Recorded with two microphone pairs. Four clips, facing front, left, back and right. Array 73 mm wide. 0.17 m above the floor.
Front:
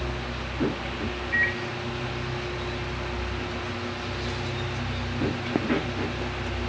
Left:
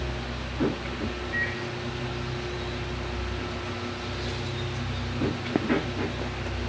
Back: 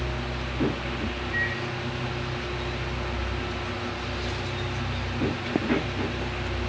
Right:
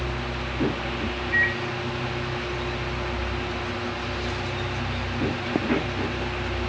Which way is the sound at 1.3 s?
40° right.